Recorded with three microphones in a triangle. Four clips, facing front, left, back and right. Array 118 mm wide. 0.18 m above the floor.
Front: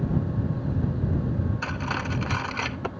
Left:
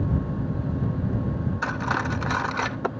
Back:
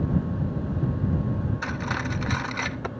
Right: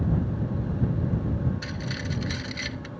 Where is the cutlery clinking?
85° left.